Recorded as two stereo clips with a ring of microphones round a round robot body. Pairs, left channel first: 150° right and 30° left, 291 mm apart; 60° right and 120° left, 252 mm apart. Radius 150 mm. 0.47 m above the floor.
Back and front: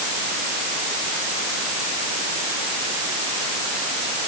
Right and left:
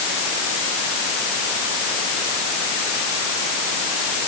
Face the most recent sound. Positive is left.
No sound to turn to.